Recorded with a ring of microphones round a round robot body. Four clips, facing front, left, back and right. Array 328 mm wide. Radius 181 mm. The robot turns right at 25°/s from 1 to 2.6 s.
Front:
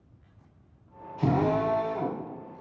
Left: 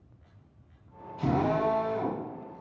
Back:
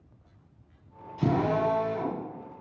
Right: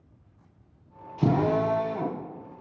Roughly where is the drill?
Behind right.